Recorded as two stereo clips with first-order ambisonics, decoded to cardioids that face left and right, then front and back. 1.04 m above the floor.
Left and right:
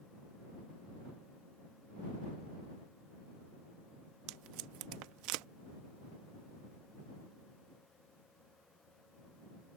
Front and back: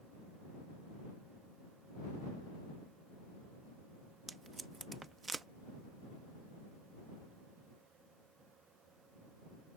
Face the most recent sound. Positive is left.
turn(degrees=-105)